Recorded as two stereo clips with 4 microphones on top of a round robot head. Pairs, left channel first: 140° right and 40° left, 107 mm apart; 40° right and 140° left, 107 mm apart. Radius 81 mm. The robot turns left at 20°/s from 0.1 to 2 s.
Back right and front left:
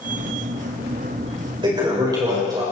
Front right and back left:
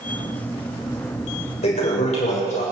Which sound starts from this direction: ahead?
A toilet flushing, at 1.6 s.